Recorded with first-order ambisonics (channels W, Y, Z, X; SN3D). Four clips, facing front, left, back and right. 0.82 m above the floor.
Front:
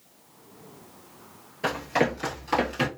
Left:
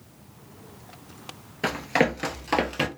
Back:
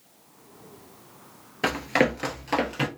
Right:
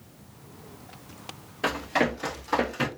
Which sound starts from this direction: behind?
Running footsteps, at 1.6 s.